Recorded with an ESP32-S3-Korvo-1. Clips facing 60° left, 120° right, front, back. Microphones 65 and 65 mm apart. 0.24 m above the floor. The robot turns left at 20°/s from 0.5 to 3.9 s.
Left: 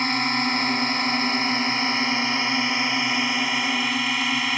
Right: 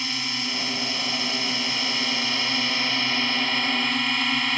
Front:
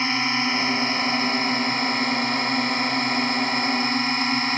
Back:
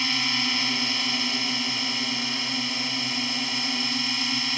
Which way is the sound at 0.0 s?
45° left.